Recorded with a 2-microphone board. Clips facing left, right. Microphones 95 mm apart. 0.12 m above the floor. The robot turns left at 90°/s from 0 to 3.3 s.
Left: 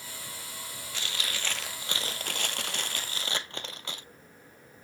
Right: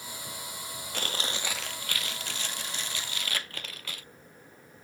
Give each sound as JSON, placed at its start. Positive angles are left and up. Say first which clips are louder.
{"t": 0.9, "sound": "chewing", "louder": "right 3 dB", "azimuth_deg": -120, "distance_m": 0.6}